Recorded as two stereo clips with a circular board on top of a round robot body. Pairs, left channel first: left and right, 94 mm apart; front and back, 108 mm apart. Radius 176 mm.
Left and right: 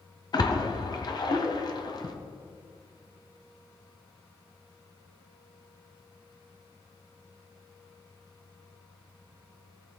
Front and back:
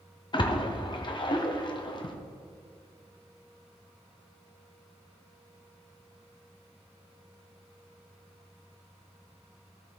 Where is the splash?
45° left, 1.2 m.